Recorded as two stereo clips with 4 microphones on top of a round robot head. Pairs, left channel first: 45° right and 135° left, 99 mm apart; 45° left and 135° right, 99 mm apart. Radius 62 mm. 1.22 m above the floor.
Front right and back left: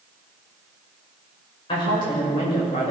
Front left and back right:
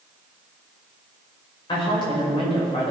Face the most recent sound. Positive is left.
turn(degrees=0)